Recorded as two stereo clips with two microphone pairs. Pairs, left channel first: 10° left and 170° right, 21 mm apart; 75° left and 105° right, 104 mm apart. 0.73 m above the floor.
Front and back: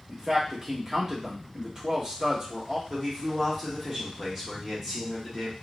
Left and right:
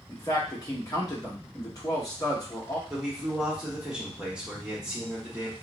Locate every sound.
0.1 s a man speaking: 130° left, 1.0 m
2.9 s a man speaking: 165° right, 1.1 m